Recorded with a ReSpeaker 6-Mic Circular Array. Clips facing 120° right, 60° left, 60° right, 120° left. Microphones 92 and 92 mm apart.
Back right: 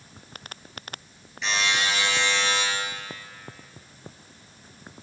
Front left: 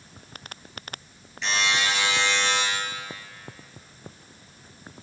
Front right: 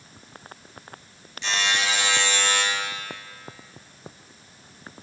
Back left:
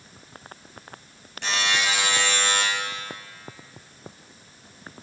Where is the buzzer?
150° left, 7 m.